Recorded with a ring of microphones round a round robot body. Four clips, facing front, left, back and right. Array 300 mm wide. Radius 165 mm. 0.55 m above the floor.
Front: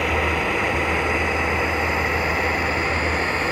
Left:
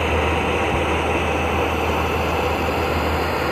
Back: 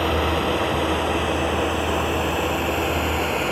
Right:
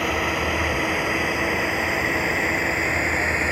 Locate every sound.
0.0 s a drone: 145° right; by 3.5 s 135° right